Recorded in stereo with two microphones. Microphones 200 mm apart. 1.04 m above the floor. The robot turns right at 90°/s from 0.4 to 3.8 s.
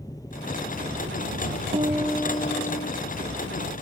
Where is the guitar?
35° right; by 2.9 s 70° left.